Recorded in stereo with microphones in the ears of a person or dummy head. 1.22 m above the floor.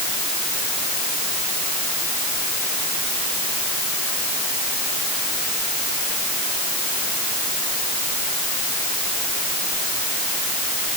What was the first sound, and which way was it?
Only background noise.